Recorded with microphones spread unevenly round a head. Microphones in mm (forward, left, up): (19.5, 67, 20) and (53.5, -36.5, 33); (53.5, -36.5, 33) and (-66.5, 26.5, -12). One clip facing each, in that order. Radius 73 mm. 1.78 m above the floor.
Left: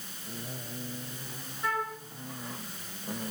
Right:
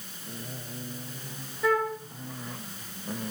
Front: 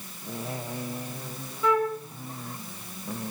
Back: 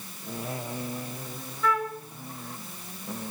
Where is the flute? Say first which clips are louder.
Right 7 dB, front 4 dB; 90° right, 4 m.